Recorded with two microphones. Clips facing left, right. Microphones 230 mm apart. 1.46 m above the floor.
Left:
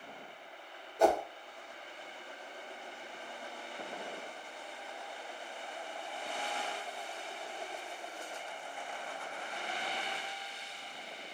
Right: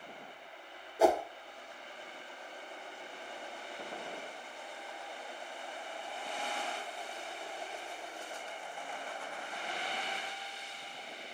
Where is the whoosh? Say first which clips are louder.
Right 1 dB; 5° right (ahead or behind), 0.6 m.